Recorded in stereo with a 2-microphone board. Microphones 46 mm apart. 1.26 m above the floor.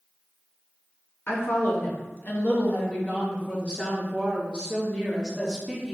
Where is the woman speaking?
60° left (ahead or behind), 2 m; by 5.9 s 5° left (ahead or behind), 3 m.